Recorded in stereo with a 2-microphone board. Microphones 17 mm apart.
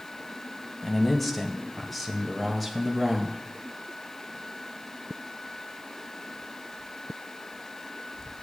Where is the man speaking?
10° left (ahead or behind), 1.6 m; by 3.4 s 5° left (ahead or behind), 1.7 m.